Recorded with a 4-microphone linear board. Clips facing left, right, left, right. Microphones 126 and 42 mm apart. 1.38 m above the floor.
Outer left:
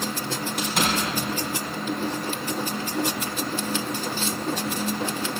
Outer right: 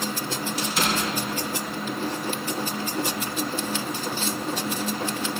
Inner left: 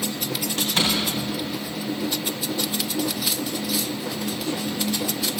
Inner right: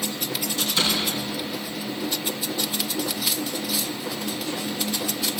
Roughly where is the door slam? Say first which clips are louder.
Outer left 1 dB, inner left 1 dB; left.